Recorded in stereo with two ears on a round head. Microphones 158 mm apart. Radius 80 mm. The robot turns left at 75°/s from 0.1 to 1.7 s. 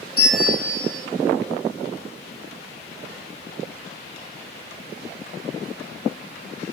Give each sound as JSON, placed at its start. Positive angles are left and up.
{"t": 0.2, "sound": "a bell", "azimuth_deg": 25, "distance_m": 2.0}